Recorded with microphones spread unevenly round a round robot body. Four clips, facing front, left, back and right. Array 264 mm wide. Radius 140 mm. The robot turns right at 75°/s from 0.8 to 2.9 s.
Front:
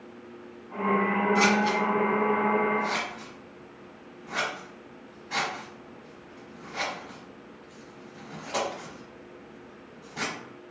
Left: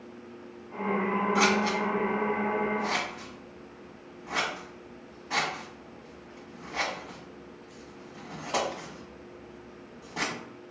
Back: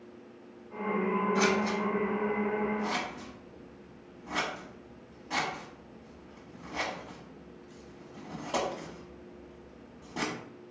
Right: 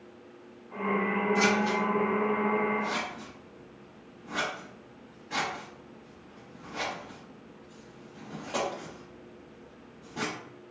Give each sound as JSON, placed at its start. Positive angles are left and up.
{"t": 1.4, "sound": "scissors", "azimuth_deg": 40, "distance_m": 1.1}